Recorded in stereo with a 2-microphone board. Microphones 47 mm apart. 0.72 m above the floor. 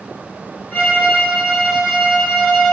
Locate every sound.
0.7 s a violin: 25° left (ahead or behind), 1.1 m